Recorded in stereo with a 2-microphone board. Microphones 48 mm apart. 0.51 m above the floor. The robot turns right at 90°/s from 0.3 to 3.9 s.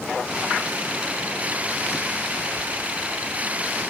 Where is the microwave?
I don't hear a microwave.